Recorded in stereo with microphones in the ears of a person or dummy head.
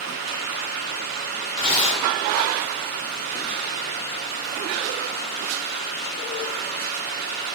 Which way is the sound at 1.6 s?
30° left (ahead or behind).